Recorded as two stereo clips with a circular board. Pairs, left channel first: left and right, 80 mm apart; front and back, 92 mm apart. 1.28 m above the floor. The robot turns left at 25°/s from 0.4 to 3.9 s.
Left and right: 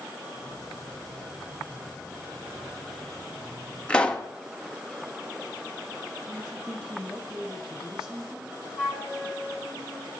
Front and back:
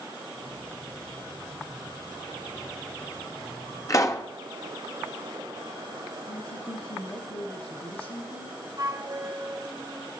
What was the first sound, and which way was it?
A pop, 20° left.